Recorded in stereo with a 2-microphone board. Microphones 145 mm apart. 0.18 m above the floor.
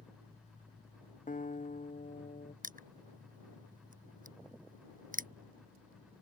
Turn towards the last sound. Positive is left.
turn(degrees=-70)  # may be behind; listen again after turning